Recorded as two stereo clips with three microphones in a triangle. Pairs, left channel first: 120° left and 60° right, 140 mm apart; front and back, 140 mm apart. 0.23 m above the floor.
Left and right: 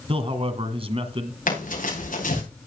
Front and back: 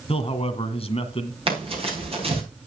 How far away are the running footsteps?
About 7 m.